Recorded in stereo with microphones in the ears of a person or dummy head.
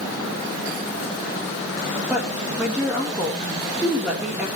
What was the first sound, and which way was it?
A woman speaking, 10° right (ahead or behind).